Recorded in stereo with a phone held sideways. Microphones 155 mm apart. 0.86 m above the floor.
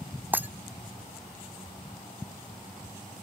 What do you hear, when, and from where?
0.3 s breaking glass: 10° right (ahead or behind)